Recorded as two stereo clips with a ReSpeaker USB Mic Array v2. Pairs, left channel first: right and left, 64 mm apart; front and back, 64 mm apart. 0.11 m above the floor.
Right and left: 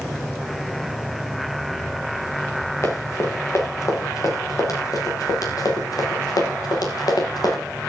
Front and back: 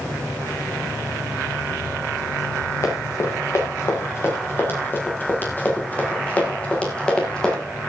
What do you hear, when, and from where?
2.8 s running footsteps: 45° right, 7.5 m; by 7.6 s 80° right, 7.5 m